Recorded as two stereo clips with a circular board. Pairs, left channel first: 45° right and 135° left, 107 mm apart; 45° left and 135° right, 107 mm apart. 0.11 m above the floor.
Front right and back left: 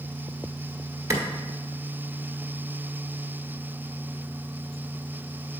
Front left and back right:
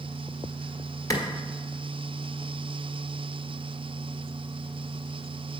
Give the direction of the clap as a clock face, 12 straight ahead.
9 o'clock.